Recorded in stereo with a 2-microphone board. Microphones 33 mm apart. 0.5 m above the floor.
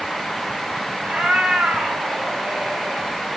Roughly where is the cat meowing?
Right.